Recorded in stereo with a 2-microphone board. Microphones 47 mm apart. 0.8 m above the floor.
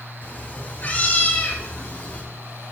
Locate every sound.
0.2 s a cat meowing: 40° left (ahead or behind), 6.5 m; by 2.2 s 30° left (ahead or behind), 4 m